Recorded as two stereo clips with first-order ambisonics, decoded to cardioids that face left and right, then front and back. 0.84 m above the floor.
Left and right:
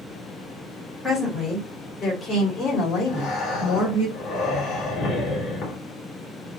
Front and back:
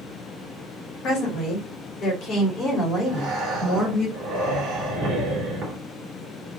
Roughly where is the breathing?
Behind left.